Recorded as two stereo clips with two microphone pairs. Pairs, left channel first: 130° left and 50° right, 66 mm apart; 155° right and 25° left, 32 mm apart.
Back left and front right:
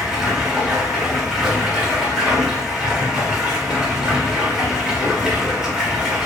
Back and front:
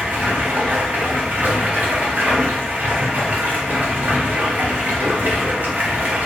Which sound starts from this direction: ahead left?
Running water, at 0.0 s.